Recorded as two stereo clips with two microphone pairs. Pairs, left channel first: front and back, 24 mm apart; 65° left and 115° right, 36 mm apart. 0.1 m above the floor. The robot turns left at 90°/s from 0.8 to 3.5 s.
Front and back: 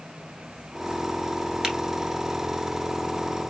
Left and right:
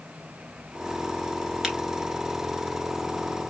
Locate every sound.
1.6 s a finger snap: 175° right, 1.3 m; by 1.8 s 175° left, 1.3 m